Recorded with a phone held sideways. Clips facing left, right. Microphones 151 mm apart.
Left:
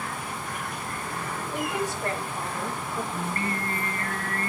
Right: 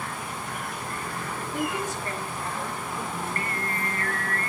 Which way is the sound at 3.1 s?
25° left (ahead or behind).